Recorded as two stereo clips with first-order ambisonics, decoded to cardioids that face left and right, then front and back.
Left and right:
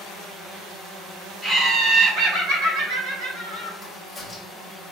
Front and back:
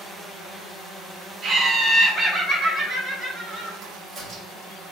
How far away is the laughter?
About 0.8 m.